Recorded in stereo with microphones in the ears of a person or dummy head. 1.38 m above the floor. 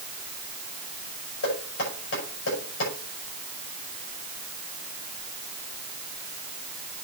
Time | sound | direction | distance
1.4 | knocking | 65° left (ahead or behind) | 6.5 m